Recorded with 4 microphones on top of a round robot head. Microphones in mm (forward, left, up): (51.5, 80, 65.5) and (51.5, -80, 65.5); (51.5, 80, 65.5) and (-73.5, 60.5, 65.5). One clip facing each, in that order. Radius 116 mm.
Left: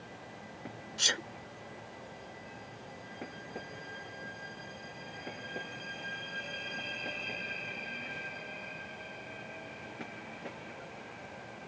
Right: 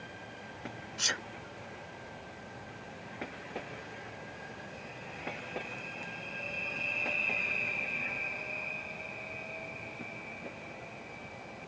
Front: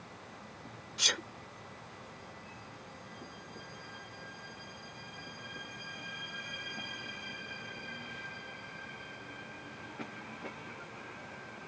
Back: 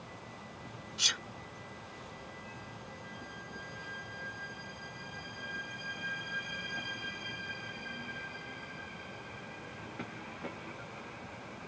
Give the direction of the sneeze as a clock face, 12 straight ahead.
11 o'clock.